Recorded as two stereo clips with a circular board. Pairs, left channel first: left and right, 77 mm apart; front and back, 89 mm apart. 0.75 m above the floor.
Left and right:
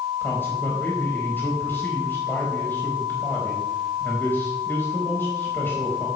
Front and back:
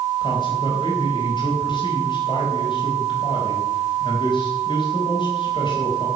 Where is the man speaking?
25° left, 4 m.